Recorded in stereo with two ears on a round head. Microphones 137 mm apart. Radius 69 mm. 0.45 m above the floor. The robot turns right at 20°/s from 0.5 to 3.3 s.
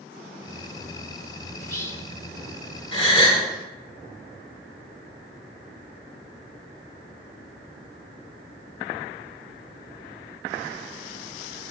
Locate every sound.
1.6 s whispering: 20° left (ahead or behind), 0.8 m; by 2.1 s 15° left (ahead or behind), 0.8 m
2.9 s a gasp: 35° left (ahead or behind), 2 m; by 3.4 s 30° left (ahead or behind), 2 m